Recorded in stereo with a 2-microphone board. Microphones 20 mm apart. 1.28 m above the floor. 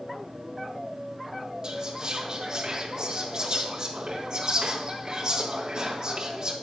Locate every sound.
1.6 s whispering: 35° right (ahead or behind), 1.9 m